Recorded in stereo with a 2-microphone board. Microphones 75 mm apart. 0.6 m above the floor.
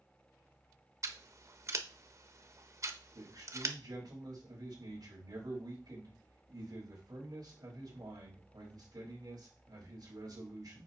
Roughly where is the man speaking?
Right.